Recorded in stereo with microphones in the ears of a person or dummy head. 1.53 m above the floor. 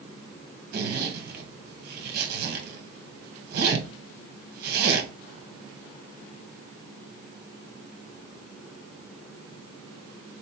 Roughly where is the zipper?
Right.